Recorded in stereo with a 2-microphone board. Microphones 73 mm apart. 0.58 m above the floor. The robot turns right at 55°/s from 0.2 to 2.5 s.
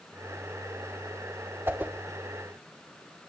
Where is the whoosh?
30° right (ahead or behind), 0.9 m; by 1.9 s 20° right (ahead or behind), 0.9 m.